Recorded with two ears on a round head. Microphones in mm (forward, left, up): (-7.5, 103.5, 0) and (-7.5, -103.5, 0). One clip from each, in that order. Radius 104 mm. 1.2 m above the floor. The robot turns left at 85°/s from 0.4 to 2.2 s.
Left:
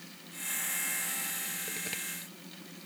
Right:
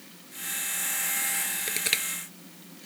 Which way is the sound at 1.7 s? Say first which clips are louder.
Right 10 dB; 60° right (ahead or behind).